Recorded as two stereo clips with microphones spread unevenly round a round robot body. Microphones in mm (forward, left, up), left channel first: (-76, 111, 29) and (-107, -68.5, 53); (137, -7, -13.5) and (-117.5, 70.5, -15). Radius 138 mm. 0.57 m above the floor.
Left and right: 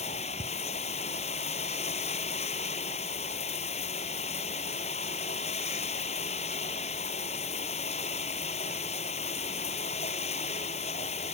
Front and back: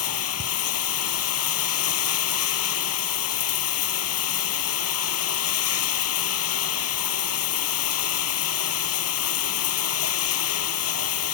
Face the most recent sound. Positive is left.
turn(degrees=15)